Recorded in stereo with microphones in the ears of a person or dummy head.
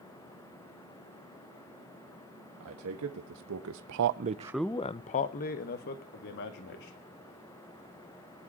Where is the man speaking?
85° right, 1.8 m; by 7.0 s 60° left (ahead or behind), 2.5 m.